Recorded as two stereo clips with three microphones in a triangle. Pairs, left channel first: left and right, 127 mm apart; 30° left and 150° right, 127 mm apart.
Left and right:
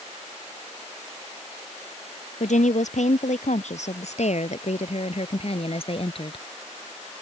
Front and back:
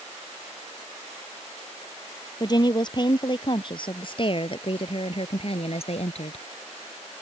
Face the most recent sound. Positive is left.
turn(degrees=50)